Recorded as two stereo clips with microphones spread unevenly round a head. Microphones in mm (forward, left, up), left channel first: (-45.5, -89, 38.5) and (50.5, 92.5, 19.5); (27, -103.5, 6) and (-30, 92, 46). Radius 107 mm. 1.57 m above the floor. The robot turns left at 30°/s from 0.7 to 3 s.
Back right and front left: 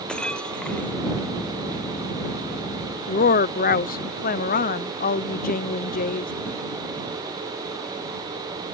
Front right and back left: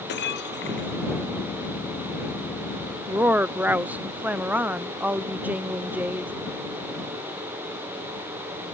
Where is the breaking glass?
30° right; by 1.0 s 40° right.